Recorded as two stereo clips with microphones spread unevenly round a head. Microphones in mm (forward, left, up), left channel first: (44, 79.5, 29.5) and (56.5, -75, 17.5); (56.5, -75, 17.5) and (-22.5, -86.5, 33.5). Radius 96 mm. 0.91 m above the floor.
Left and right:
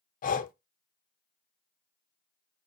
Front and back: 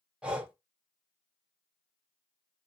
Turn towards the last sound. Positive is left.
turn(degrees=100)